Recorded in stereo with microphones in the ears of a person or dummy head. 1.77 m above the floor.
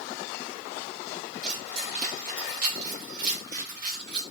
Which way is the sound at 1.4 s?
35° right (ahead or behind).